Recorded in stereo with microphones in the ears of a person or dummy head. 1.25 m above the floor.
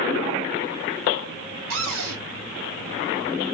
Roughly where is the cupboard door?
Right.